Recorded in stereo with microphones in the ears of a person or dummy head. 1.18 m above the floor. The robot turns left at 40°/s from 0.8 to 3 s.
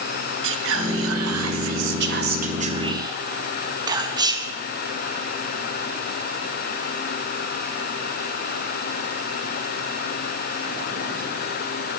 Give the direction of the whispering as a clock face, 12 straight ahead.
2 o'clock.